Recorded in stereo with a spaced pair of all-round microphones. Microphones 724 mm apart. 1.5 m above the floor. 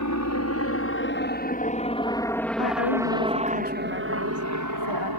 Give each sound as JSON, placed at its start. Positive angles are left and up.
{"t": 0.0, "sound": "a helicopter", "side_deg": 25}
{"t": 2.6, "sound": "a woman speaking", "side_deg": 35}